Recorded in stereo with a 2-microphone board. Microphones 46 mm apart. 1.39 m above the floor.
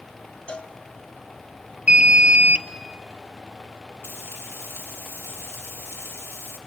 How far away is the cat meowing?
No cat meowing in this recording.